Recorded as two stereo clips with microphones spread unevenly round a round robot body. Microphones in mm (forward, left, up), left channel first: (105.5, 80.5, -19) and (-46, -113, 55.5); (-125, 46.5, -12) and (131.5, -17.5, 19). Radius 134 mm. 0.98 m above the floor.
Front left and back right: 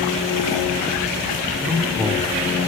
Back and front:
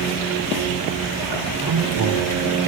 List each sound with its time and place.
1.6 s a man speaking: 45° right, 2.5 m